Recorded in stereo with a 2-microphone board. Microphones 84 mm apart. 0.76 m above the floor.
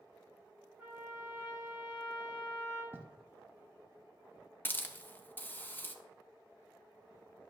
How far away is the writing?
About 1.0 m.